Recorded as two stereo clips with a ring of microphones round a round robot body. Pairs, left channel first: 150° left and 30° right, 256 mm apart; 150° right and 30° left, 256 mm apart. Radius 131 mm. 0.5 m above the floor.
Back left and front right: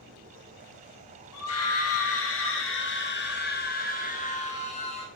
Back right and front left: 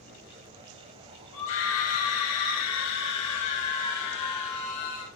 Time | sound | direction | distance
1.3 | a scream | 175° left | 3 m